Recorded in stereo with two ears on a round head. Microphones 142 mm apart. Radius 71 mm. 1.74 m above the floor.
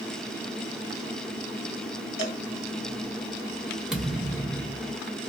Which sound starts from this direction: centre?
A thud, at 3.9 s.